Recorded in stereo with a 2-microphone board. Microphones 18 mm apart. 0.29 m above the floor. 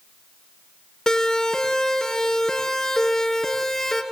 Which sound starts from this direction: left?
A siren, at 1.1 s.